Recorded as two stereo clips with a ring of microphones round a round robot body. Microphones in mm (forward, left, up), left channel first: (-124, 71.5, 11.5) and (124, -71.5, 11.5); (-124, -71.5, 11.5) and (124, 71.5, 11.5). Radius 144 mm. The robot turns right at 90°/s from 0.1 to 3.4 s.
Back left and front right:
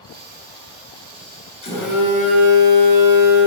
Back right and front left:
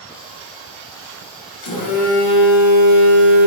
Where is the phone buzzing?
140° right, 3 m; by 3.5 s 20° left, 3 m.